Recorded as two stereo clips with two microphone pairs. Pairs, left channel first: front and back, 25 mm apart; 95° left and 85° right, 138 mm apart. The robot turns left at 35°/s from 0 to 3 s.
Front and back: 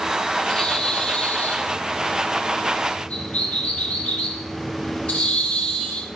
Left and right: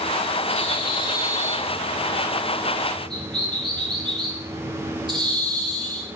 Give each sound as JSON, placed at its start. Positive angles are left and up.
{"t": 0.5, "sound": "a bird", "azimuth_deg": 60, "distance_m": 8.0}